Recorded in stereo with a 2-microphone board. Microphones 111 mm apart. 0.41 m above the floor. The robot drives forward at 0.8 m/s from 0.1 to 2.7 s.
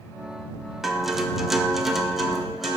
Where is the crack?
I don't hear a crack.